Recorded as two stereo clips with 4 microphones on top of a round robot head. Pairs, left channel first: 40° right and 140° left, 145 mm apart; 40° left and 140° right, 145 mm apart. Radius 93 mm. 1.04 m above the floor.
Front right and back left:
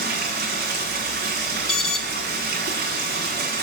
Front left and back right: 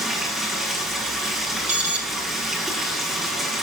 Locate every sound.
0.0 s running water: 130° left, 8.5 m
1.7 s an alarm: 95° right, 2.0 m